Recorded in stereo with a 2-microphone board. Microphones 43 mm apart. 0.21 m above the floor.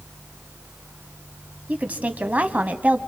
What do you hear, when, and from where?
1.7 s a woman speaking: 35° right (ahead or behind), 1.3 m